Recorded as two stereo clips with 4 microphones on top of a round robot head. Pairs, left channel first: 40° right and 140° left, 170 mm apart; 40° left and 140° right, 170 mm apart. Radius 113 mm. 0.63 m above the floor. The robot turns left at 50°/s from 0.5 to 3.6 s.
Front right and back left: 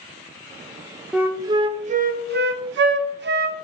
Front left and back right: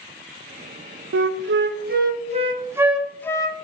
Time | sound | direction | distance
1.1 | a flute | 135° right | 0.6 m